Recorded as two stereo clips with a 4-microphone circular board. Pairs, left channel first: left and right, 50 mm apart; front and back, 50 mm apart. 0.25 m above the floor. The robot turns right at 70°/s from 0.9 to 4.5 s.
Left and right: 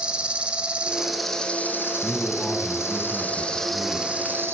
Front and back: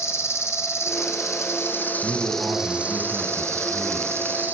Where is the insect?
20° right, 1.7 m; by 4.5 s 130° right, 1.7 m.